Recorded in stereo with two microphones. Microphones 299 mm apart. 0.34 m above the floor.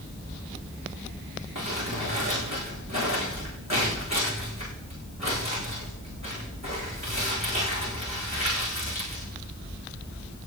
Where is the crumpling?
60° right (ahead or behind), 9 m.